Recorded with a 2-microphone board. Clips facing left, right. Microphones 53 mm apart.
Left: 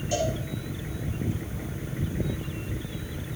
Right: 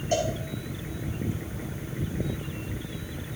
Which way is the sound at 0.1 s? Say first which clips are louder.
Right 1 dB; 45° right (ahead or behind).